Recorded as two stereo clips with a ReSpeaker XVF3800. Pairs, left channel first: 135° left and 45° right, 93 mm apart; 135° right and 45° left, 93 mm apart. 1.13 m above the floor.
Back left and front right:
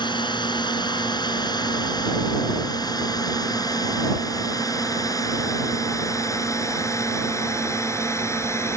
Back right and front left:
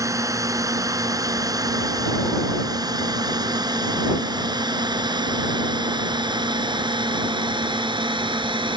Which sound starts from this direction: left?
A drone, at 0.0 s.